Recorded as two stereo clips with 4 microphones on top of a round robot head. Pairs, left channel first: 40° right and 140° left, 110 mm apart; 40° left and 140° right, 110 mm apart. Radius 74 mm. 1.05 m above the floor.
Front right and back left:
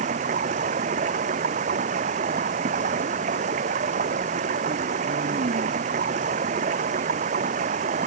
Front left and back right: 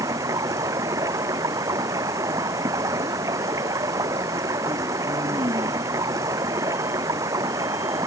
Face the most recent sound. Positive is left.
turn(degrees=155)